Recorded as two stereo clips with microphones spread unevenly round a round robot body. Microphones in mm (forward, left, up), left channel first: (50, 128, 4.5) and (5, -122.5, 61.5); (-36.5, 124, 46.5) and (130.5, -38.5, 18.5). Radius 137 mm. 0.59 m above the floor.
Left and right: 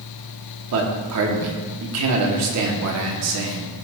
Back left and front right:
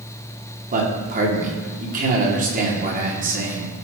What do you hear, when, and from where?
0.7 s a man speaking: 85° right, 1.8 m